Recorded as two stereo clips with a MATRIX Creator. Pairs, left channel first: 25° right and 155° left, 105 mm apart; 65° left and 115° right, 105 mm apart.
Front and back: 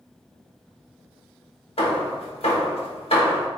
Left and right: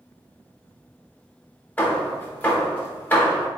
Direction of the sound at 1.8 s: 5° right.